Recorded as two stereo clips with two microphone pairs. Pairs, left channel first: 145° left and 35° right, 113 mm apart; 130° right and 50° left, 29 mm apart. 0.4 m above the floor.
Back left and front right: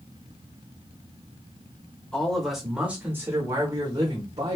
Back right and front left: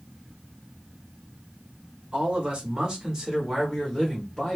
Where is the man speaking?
65° left, 1.4 m; by 4.6 s 40° right, 1.6 m.